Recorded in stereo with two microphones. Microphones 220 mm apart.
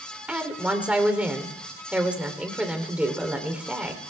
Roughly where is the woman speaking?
Centre.